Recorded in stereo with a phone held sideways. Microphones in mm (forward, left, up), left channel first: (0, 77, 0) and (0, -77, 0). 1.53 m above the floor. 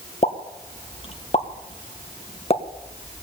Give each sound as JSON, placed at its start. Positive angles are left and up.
{"t": 0.2, "sound": "a pop", "side_deg": 40, "distance_m": 1.8}